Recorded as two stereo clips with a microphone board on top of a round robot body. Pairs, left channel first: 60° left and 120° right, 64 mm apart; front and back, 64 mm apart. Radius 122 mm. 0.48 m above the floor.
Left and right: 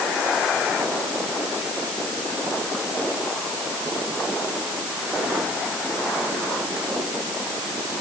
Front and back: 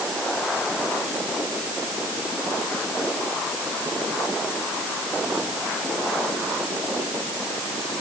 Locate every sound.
Only background noise.